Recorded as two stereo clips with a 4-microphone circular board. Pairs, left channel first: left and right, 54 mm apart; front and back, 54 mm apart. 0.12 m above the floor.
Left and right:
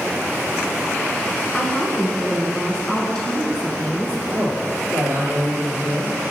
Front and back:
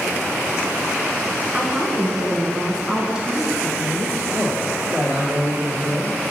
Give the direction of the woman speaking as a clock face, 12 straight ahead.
8 o'clock.